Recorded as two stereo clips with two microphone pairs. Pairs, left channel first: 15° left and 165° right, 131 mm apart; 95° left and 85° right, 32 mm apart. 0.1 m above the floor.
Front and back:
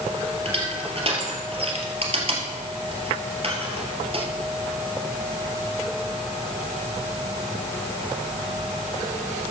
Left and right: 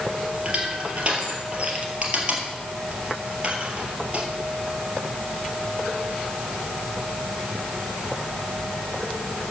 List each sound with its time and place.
0.5 s crushing: 135° right, 2.5 m